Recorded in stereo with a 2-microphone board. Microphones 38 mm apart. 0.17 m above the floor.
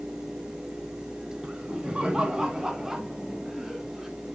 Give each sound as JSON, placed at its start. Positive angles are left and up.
{"t": 1.4, "sound": "laughter", "side_deg": -30, "distance_m": 1.8}